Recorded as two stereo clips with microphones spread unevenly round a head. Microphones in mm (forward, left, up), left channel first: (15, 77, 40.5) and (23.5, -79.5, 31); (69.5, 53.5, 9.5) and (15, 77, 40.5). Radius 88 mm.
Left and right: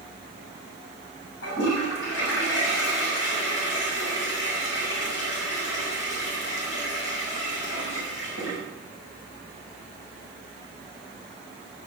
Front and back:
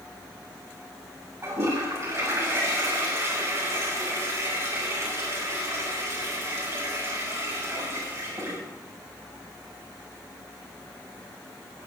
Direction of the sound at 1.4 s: 115° left.